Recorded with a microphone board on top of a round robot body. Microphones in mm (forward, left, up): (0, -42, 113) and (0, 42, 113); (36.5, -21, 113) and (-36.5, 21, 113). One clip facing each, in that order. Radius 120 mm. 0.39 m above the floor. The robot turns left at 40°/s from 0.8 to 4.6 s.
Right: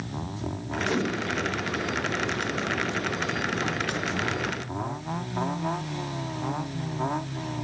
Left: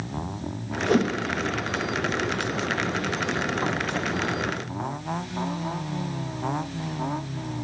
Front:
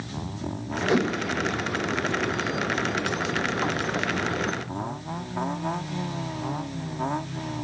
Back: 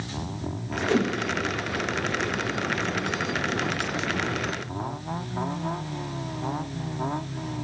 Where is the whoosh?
45° left, 0.6 m; by 1.1 s 35° left, 0.6 m.